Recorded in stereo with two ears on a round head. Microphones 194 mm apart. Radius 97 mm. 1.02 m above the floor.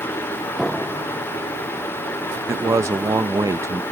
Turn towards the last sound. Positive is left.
turn(degrees=-15)  # may be behind; listen again after turning